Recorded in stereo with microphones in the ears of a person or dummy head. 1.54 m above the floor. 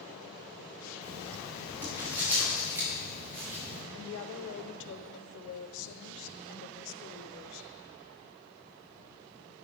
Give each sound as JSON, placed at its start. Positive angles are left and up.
{"t": 1.0, "sound": "writing", "side_deg": -10, "distance_m": 5.0}
{"t": 3.9, "sound": "a woman speaking", "side_deg": 65, "distance_m": 0.9}